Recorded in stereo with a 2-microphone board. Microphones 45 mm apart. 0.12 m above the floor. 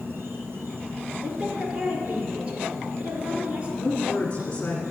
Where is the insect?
60° right (ahead or behind), 2 m.